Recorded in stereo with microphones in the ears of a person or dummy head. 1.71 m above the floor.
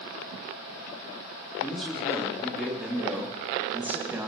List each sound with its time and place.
1.6 s a man speaking: 5° right (ahead or behind), 4 m; by 4.3 s 20° right (ahead or behind), 2 m